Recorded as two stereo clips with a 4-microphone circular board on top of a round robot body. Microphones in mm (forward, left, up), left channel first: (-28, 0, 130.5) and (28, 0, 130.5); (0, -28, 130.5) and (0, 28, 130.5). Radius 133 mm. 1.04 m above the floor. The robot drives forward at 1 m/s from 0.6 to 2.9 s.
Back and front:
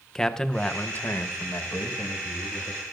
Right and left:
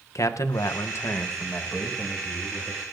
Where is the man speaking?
100° right, 0.8 m; by 2.8 s 160° right, 2.5 m.